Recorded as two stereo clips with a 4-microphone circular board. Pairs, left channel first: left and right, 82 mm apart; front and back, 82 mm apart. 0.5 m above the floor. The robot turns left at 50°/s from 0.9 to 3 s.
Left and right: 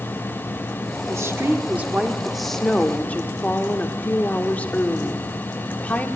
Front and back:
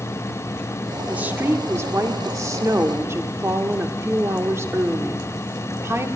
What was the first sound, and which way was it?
A woman speaking, 115° right.